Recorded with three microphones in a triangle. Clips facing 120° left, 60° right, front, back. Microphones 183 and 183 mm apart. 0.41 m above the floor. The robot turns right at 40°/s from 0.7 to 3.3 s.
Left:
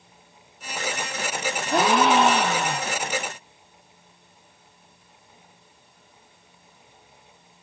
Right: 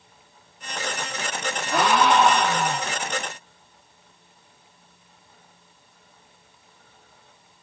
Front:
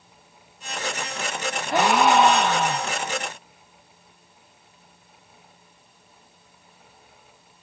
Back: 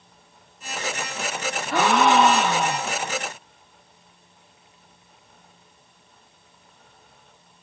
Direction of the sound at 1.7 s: 70° left.